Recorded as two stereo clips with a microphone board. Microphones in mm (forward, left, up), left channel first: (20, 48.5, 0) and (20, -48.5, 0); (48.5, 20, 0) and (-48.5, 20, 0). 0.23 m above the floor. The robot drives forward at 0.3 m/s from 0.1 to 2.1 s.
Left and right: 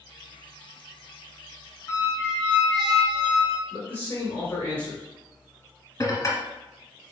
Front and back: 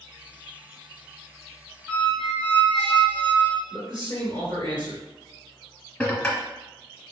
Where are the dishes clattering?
75° left, 0.8 m.